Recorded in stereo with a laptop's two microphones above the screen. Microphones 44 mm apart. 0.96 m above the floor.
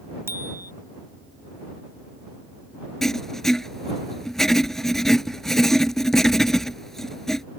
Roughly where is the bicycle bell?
Right.